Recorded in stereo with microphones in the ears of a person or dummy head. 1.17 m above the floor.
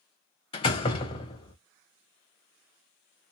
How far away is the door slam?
About 0.6 m.